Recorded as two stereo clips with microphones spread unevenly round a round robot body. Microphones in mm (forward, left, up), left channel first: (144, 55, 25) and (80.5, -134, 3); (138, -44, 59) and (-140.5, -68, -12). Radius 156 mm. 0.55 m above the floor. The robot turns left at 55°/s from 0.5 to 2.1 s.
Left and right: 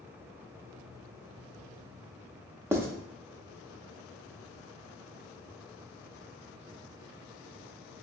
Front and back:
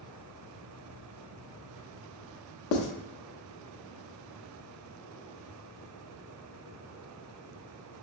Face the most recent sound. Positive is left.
turn(degrees=-35)